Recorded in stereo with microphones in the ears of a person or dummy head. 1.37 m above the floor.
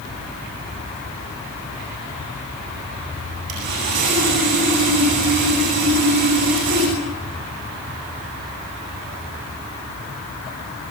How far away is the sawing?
About 9 m.